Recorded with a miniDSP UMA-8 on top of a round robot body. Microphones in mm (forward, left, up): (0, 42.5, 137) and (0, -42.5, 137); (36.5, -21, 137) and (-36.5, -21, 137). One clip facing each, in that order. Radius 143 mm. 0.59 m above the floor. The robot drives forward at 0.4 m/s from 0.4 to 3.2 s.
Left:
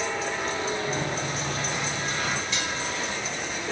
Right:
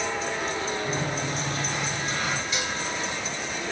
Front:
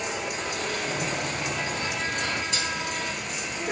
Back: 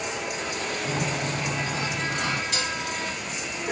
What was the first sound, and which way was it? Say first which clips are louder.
A sliding door: even, back 1 dB; straight behind.